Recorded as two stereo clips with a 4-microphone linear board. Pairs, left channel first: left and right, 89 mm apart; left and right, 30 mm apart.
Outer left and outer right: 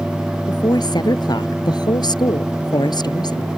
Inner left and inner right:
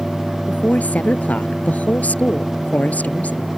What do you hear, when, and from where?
0.5 s a woman speaking: 60° left (ahead or behind)